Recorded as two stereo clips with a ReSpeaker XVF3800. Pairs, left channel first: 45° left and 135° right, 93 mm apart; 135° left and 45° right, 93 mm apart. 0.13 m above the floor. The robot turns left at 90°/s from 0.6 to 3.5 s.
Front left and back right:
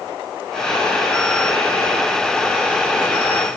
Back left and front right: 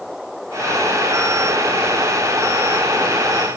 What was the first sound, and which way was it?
Only background noise.